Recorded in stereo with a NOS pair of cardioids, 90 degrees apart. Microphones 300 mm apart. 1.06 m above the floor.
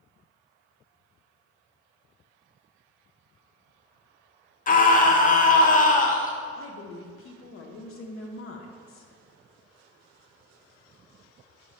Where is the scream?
30° left, 0.7 m.